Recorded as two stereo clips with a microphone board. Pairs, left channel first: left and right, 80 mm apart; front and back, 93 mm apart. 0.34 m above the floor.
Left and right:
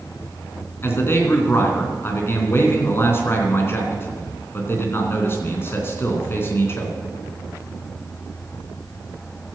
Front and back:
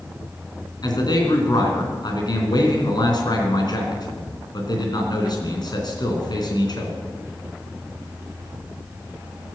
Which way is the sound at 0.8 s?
35° left.